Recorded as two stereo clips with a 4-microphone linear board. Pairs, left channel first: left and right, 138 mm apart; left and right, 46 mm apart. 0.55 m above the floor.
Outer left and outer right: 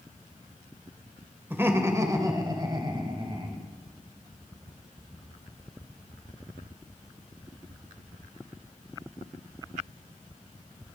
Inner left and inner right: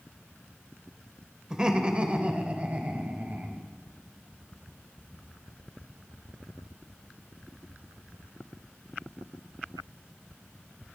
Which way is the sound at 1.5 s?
15° right (ahead or behind).